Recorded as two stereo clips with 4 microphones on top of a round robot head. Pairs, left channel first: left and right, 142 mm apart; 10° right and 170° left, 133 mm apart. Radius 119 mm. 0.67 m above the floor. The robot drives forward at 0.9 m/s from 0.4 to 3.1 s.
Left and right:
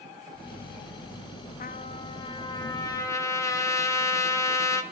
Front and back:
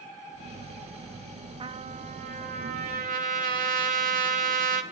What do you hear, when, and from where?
1.6 s a trumpet: 120° left, 0.8 m; by 4.8 s 160° left, 1.8 m